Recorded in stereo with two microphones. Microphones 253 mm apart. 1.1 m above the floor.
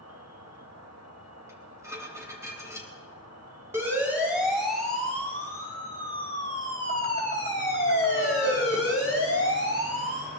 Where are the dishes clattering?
10° right (ahead or behind), 3.5 m.